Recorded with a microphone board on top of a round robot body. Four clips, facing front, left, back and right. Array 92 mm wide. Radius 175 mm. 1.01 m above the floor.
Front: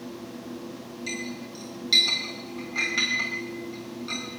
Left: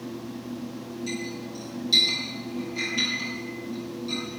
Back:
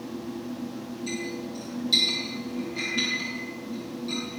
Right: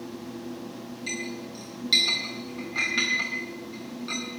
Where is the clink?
55° right, 4.5 m.